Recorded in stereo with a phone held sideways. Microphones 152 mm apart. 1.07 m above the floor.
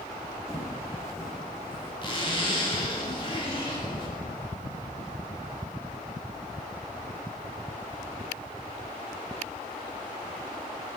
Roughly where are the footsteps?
Left.